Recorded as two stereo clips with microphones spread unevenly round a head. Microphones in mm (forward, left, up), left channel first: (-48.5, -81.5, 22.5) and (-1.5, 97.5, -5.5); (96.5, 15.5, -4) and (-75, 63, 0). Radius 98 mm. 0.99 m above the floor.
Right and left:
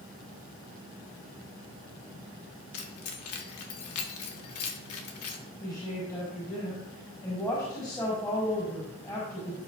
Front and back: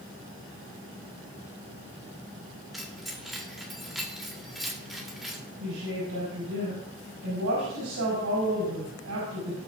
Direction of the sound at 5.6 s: 175° right.